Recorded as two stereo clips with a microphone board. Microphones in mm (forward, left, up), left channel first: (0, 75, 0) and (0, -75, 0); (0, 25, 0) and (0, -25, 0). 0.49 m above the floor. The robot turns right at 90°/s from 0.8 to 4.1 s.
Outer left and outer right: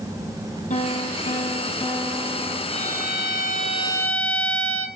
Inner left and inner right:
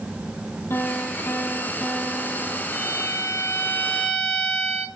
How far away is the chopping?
I don't hear chopping.